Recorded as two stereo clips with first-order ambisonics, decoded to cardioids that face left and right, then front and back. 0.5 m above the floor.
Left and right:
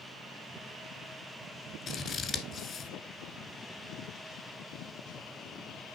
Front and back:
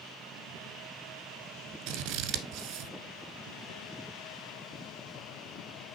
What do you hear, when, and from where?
1.9 s scissors: 150° left, 1.2 m